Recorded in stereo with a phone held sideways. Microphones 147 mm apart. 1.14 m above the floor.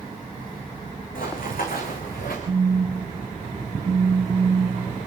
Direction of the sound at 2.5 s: 40° right (ahead or behind).